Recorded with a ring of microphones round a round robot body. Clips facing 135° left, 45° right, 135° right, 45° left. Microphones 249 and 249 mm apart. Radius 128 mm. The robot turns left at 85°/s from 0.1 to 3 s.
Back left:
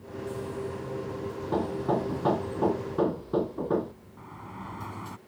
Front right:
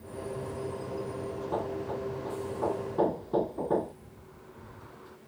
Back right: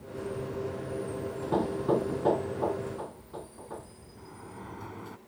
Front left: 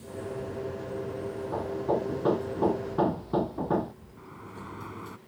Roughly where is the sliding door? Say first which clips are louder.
Back left 6 dB, even; behind left.